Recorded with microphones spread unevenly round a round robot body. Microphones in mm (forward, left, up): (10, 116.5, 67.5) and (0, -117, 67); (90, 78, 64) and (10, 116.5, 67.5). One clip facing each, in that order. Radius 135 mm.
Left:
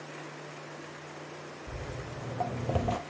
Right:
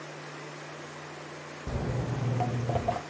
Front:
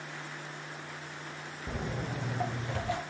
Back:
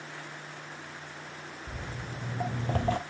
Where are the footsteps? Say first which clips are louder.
Right 10 dB, front 6 dB; 75° right, 1.1 m; by 3.0 s 145° left, 0.7 m.